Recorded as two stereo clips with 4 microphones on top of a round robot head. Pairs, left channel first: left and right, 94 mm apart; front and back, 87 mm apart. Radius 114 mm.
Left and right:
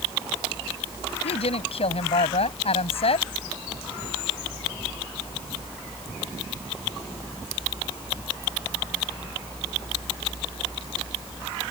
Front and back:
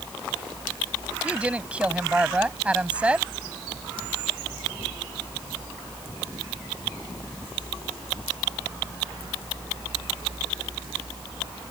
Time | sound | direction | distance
1.2 | a woman speaking | 100° left | ?